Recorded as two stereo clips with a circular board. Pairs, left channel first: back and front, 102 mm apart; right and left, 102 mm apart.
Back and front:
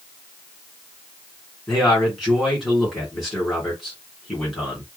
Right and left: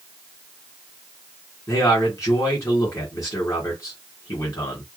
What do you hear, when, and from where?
1.7 s a man speaking: 90° right, 1.9 m